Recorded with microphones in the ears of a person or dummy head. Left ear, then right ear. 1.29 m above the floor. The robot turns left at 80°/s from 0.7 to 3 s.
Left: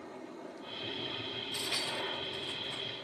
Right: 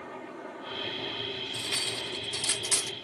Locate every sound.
0.0 s a helicopter: 120° right; by 3.1 s 55° left
1.5 s cutlery clinking: 15° left; by 2.9 s 95° right